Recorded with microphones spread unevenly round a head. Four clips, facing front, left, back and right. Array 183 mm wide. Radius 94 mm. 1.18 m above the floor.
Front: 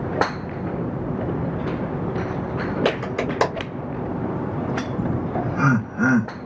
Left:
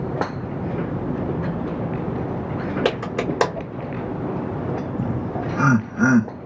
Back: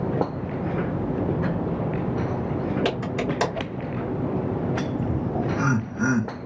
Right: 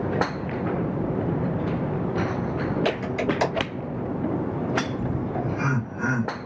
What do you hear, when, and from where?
2.9 s a clap: 65° left, 2 m
5.0 s laughter: 65° left, 1.8 m